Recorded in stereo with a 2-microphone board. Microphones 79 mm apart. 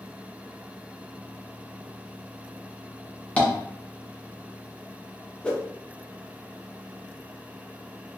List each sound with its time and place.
3.4 s tapping: 15° left (ahead or behind), 0.9 m
5.4 s a whoosh: 10° left (ahead or behind), 0.8 m